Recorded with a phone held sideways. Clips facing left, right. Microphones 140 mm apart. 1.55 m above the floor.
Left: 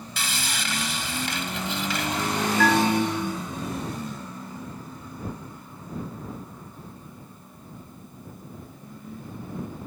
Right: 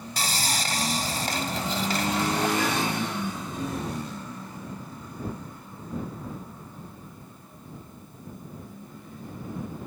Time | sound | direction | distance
0.2 | sawing | 40° right (ahead or behind) | ?
2.6 | a bell | 75° left (ahead or behind) | ?